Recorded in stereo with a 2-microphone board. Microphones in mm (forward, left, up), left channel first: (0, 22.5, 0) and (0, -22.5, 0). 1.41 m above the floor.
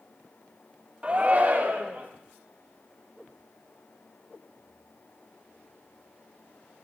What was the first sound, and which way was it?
A shout, 30° right (ahead or behind).